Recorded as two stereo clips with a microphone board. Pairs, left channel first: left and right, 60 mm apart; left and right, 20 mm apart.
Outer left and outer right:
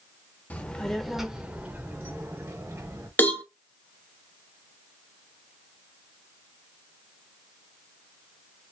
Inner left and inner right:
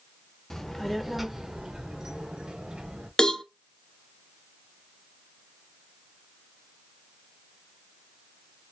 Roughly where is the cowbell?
Left.